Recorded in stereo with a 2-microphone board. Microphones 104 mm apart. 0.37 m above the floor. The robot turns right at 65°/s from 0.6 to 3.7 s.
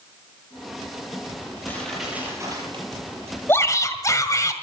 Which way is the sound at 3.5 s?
20° left (ahead or behind).